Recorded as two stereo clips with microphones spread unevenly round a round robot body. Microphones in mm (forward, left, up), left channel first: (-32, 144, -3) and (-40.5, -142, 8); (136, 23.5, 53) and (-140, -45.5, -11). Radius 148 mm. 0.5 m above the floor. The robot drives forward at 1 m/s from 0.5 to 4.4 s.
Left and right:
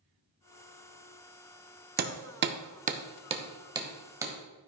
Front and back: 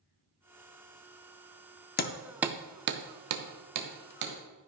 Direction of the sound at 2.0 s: 45° right.